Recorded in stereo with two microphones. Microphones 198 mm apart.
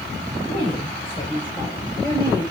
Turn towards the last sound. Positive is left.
turn(degrees=15)  # may be behind; listen again after turning